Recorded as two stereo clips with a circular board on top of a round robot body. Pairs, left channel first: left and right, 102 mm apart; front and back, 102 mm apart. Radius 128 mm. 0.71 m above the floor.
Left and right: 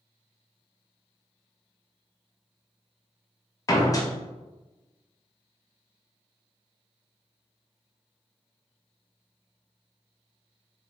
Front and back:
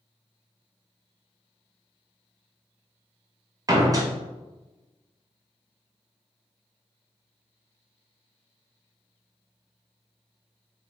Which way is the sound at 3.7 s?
135° left.